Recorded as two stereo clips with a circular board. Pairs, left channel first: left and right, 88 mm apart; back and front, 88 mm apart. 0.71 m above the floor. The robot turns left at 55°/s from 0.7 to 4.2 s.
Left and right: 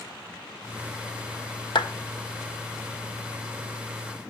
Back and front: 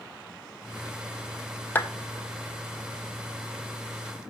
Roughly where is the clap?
Behind left.